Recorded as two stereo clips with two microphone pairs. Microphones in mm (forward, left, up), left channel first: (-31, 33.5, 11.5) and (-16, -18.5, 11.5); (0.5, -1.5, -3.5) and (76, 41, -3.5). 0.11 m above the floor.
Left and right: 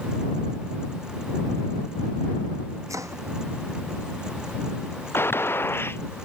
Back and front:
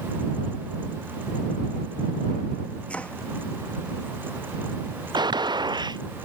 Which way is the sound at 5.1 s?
60° left.